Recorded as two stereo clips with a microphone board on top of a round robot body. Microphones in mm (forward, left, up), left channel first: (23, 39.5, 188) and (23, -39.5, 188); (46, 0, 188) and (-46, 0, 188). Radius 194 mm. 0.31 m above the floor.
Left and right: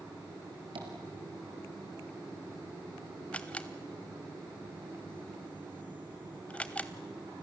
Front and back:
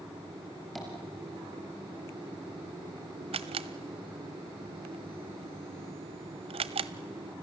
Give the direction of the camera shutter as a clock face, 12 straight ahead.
6 o'clock.